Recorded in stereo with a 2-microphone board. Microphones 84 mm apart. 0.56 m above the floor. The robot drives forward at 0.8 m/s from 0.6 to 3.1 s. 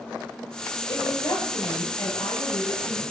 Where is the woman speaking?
70° left (ahead or behind), 2.5 m; by 3.0 s 40° left (ahead or behind), 3 m.